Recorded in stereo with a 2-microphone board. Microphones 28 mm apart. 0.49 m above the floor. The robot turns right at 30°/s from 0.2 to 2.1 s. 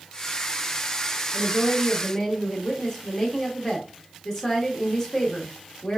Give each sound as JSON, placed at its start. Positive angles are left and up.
{"t": 1.3, "sound": "a woman speaking", "side_deg": 35, "distance_m": 0.9}